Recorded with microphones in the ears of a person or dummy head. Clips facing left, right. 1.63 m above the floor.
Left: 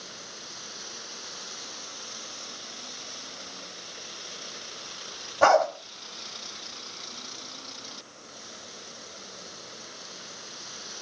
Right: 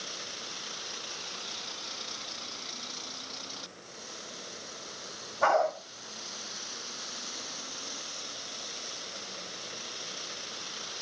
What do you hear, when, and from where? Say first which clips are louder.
5.4 s a dog barking: left 6 dB; 70° left (ahead or behind), 4.5 m